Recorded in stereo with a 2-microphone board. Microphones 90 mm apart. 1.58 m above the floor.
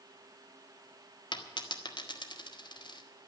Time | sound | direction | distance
1.3 | a dropped coin | 55° left (ahead or behind) | 1.7 m